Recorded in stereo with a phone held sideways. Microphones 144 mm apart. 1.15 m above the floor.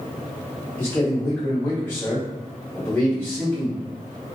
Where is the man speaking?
10° left (ahead or behind), 1.6 m.